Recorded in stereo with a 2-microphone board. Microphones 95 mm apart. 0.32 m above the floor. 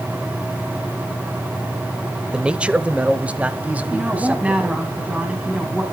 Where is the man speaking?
10° right (ahead or behind), 0.9 m; by 4.8 s 15° right (ahead or behind), 2.5 m.